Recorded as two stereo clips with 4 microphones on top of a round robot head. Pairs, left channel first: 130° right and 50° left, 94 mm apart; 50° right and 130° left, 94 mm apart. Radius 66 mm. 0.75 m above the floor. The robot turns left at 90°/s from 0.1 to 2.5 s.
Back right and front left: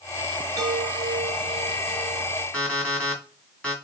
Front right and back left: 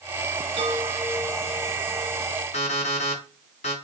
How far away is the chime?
About 3.5 m.